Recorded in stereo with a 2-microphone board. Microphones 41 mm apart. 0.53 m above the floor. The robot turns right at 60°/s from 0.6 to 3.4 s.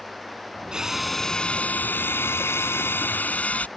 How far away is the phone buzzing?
No phone buzzing in this recording.